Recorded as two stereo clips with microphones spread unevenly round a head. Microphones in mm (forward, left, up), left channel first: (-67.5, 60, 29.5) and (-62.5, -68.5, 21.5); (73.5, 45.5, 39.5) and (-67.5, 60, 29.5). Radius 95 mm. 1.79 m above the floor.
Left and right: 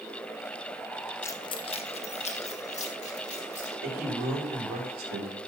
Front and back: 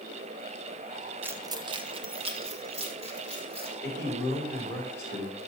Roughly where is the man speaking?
Right.